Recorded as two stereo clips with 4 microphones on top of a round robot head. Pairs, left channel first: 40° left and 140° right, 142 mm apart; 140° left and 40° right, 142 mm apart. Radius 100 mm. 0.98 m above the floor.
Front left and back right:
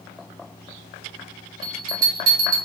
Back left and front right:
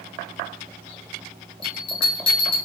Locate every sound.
1.6 s a bell: 165° right, 0.9 m